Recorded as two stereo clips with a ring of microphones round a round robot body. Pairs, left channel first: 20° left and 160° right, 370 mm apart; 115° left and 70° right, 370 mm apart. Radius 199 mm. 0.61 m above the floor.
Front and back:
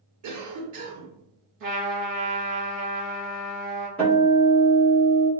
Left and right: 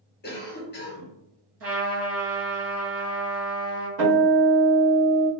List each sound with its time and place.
0.2 s a cough: 170° left, 1.0 m
1.6 s a trumpet: 120° right, 1.7 m
4.0 s a guitar: 65° right, 1.7 m